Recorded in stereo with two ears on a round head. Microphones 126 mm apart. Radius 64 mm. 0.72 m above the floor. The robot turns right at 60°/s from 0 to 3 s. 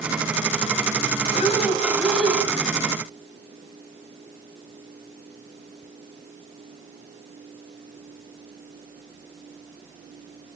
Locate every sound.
1.3 s breathing: 125° left, 4 m; by 2.4 s 170° right, 4 m